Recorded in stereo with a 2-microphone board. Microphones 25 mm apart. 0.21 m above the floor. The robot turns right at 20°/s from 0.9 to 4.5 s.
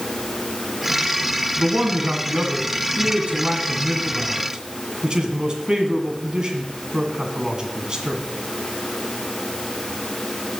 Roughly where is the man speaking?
Right.